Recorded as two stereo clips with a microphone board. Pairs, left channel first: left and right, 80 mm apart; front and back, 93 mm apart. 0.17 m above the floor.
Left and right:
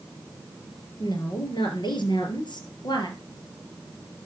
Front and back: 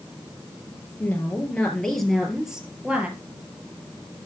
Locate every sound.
1.0 s a woman speaking: 70° left, 3 m; by 3.2 s 105° left, 3 m